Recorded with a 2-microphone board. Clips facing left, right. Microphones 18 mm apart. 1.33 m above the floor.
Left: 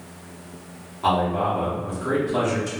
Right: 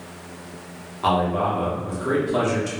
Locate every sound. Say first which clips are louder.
1.0 s a man speaking: even; 10° right (ahead or behind), 0.8 m